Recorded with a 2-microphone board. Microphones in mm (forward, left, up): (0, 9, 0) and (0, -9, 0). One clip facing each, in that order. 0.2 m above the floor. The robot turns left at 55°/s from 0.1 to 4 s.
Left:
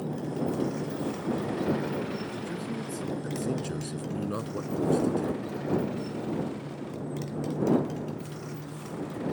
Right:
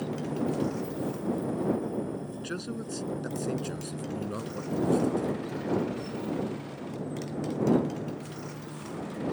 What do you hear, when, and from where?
0.0 s a motorcycle: 155° right; by 9.3 s 10° right
2.4 s a man speaking: 55° right (ahead or behind); by 5.4 s 15° left (ahead or behind)